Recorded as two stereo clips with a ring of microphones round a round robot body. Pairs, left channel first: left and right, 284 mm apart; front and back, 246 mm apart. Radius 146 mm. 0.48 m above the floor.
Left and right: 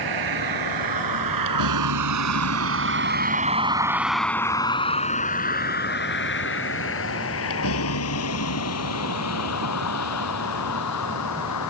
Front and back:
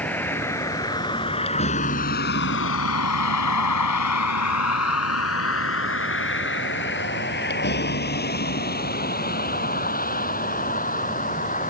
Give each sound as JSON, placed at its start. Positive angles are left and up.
{"t": 0.0, "sound": "a vehicle", "azimuth_deg": -85}